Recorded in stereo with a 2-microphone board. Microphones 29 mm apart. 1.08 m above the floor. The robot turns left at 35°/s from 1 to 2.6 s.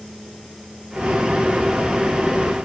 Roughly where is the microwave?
No microwave in this recording.